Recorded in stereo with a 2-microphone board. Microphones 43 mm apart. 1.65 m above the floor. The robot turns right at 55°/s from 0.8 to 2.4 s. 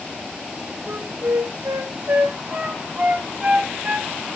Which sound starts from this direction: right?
A flute, at 0.9 s.